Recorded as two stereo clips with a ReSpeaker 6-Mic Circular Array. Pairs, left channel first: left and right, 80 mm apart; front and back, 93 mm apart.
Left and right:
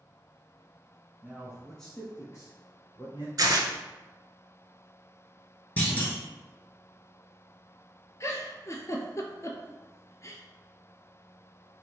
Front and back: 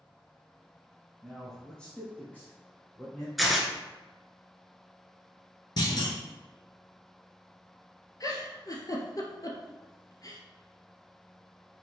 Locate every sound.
1.2 s a man speaking: 90° right, 1.1 m; by 3.3 s 70° left, 2 m
3.4 s tearing paper: 90° right, 0.6 m
5.8 s a clunk: 25° left, 1.1 m
8.2 s a giggle: 40° left, 0.6 m